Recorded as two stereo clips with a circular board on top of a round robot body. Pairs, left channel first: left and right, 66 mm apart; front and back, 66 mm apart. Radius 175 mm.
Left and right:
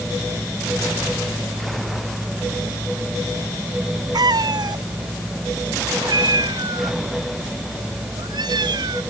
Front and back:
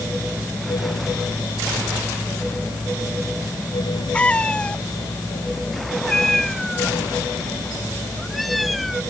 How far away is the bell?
No bell in this recording.